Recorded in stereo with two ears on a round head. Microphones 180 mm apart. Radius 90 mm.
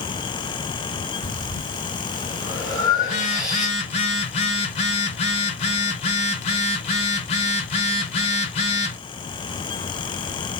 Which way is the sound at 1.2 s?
5° right (ahead or behind).